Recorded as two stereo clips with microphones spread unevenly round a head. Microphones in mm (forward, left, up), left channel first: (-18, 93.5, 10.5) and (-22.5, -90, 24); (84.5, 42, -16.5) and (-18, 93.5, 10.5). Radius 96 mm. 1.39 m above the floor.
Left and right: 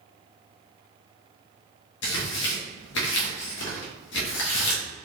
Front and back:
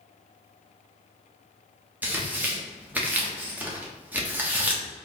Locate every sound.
2.0 s tearing paper: 90° left, 1.1 m